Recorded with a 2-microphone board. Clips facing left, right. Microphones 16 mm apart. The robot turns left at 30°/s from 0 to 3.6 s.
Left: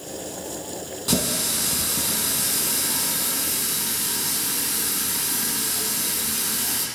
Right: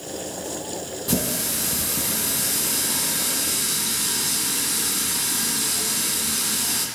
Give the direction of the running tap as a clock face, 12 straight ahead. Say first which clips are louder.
Left 2 dB; 11 o'clock.